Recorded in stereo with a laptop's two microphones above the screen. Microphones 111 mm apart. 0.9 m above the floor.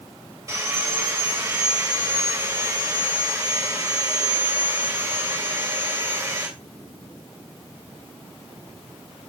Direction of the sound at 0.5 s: 30° right (ahead or behind).